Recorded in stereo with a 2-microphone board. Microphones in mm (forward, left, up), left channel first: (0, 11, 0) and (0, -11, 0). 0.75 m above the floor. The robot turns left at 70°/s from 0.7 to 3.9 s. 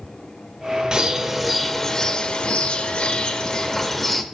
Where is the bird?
130° right, 0.7 m; by 4.2 s 20° left, 0.7 m.